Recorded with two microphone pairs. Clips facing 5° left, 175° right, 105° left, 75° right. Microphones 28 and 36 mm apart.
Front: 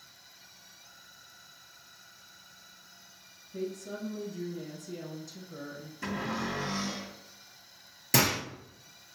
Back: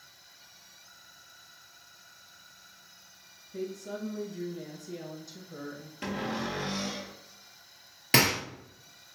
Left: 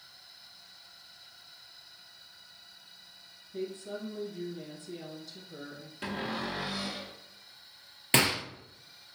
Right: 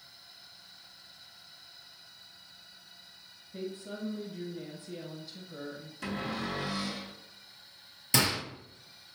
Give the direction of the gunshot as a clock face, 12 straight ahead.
7 o'clock.